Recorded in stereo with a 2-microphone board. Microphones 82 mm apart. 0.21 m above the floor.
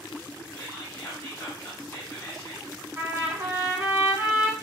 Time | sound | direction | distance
0.5 | whispering | 35° left (ahead or behind) | 1.2 m
3.0 | a trumpet | 20° right (ahead or behind) | 1.3 m